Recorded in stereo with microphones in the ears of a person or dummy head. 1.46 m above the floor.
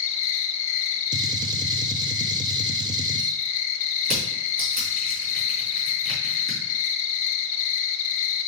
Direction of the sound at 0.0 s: 50° left (ahead or behind).